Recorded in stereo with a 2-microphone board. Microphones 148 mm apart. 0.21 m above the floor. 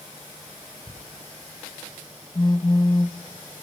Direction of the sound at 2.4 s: 30° left (ahead or behind).